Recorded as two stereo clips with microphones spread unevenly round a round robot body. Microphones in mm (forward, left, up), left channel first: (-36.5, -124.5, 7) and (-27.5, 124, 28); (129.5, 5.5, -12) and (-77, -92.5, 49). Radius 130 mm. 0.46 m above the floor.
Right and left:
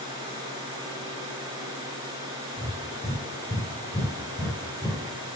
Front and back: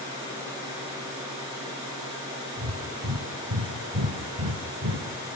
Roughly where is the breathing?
Behind.